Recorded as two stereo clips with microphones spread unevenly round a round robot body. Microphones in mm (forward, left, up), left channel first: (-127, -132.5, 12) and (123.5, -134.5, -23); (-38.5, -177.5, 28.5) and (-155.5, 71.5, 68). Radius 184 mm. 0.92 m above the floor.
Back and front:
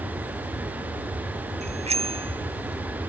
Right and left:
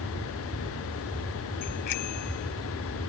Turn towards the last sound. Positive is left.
turn(degrees=-75)